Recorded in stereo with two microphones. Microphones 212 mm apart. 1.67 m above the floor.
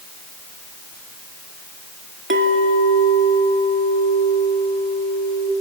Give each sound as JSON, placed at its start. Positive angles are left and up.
{"t": 2.3, "sound": "a clink", "side_deg": -65, "distance_m": 2.5}